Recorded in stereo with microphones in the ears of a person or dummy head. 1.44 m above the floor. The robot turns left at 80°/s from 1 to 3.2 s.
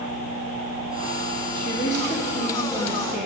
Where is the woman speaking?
135° left, 2 m; by 3.3 s 5° left, 2 m.